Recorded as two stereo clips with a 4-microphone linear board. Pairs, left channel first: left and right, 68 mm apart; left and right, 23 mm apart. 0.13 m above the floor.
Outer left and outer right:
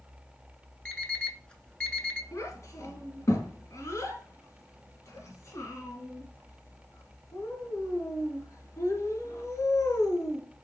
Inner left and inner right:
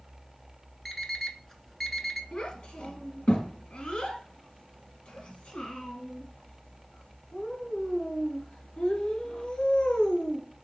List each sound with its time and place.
0.8 s an alarm clock: 15° left (ahead or behind), 0.7 m
2.3 s a child speaking: 40° left (ahead or behind), 1.6 m